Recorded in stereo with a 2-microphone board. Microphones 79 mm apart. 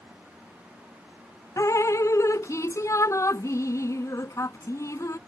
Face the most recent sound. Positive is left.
turn(degrees=40)  # may be behind; listen again after turning